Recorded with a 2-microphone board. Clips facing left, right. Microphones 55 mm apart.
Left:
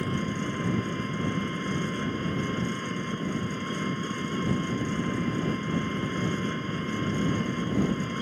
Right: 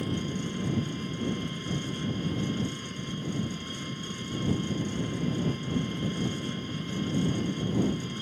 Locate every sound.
0.0 s an engine running: 30° left (ahead or behind)